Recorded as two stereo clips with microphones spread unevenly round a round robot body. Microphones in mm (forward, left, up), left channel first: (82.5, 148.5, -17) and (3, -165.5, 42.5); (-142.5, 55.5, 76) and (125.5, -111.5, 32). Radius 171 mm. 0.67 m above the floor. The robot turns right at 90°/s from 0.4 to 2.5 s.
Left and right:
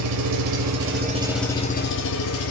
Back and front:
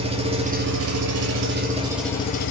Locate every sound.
0.0 s an engine running: 95° right, 1.0 m; by 2.5 s 95° left, 1.0 m